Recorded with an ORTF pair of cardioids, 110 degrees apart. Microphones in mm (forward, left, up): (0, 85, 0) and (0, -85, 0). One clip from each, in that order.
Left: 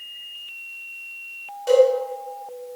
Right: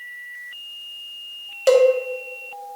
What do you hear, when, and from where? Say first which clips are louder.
1.7 s a cowbell: right 1 dB; 65° right, 1.6 m